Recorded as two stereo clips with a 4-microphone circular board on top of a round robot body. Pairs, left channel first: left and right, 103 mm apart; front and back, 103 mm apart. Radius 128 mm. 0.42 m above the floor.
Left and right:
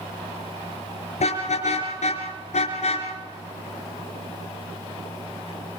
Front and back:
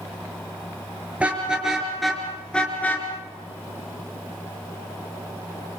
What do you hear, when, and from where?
1.2 s a car horn: 100° left, 4.5 m; by 5.8 s 30° left, 5.5 m